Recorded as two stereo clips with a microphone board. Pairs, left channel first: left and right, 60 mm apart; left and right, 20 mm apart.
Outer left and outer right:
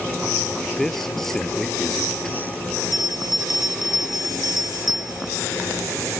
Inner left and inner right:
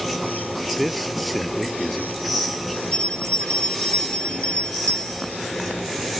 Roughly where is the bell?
Left.